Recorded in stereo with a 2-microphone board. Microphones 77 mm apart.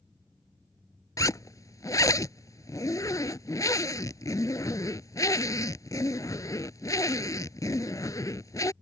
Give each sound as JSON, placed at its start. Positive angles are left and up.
{"t": 1.2, "sound": "a zipper", "side_deg": 50}